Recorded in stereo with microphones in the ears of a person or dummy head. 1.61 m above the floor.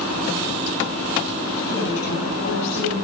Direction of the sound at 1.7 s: 60° left (ahead or behind).